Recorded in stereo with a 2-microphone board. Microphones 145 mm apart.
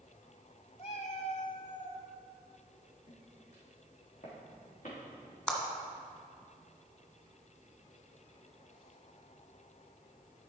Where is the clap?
5° left (ahead or behind), 1.6 m.